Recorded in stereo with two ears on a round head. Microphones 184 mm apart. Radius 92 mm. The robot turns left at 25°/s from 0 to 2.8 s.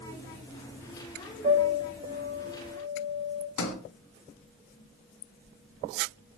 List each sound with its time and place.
1.4 s a piano: 30° right, 0.9 m; by 3.5 s 65° right, 0.9 m
3.6 s a sliding door: 70° left (ahead or behind), 0.6 m